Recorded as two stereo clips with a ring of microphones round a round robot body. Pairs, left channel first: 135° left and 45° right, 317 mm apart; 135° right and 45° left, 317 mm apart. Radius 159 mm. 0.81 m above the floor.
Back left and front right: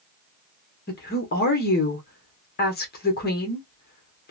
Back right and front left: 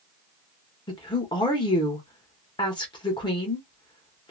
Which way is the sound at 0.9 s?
160° left.